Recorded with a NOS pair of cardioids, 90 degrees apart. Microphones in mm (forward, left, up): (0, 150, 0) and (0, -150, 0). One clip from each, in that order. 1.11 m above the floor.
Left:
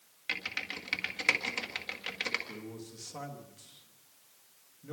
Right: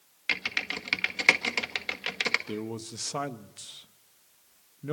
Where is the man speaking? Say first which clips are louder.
Right 8 dB; 70° right, 1.2 m.